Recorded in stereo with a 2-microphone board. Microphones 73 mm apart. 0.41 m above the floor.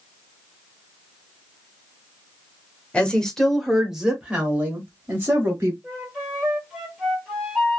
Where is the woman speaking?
15° left (ahead or behind), 1.1 m; by 5.7 s 35° right (ahead or behind), 1.8 m.